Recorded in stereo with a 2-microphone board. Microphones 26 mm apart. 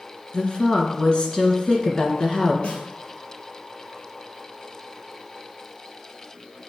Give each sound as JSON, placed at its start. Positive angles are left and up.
{"t": 0.3, "sound": "a woman speaking", "side_deg": 40, "distance_m": 1.6}
{"t": 2.6, "sound": "a snare drum", "side_deg": 55, "distance_m": 1.9}